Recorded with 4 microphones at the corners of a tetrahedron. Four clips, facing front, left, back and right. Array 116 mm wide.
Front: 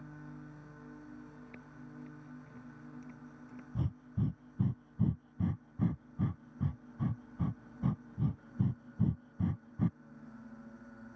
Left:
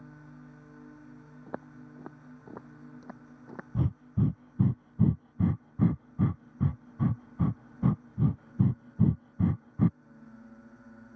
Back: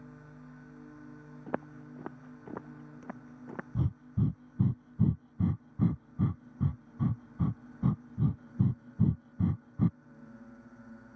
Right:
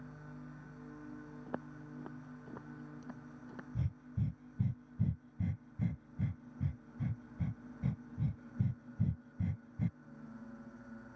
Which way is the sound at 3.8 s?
95° left.